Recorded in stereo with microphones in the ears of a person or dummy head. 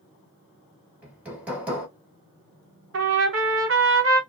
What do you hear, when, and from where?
1.0 s hammering: 10° right (ahead or behind), 1.0 m
2.9 s a trumpet: 65° right (ahead or behind), 0.9 m